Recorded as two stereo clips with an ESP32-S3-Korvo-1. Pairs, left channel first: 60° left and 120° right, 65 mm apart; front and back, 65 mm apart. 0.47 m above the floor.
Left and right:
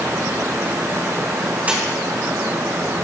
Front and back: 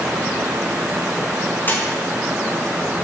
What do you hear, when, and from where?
1.7 s a splash: 55° right, 5 m